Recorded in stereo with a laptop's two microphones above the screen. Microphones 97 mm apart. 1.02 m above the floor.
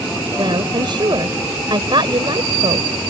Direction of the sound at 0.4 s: 50° right (ahead or behind).